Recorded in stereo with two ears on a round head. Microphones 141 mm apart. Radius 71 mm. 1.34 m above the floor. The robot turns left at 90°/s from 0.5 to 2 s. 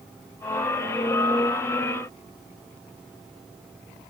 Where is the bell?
No bell in this recording.